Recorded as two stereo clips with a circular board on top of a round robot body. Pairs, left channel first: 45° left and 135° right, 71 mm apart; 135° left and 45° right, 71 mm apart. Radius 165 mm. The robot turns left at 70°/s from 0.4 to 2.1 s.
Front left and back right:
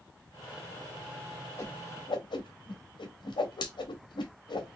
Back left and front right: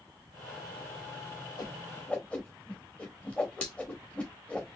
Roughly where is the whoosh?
Left.